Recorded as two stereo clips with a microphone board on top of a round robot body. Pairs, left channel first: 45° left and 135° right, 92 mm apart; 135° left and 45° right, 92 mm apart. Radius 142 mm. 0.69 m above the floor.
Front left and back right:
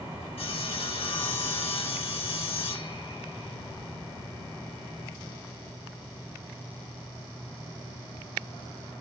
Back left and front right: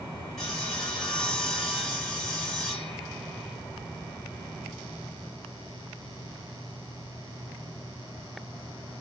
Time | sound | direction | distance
0.4 | sawing | 50° left | 2.5 m